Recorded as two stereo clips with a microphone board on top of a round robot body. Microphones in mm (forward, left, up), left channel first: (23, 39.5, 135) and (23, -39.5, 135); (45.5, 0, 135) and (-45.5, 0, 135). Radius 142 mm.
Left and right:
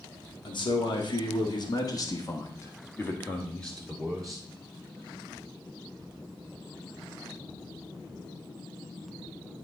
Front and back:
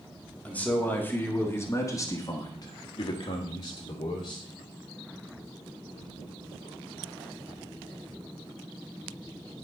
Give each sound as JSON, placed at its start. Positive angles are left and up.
{"t": 0.5, "sound": "a man speaking", "azimuth_deg": 75, "distance_m": 2.0}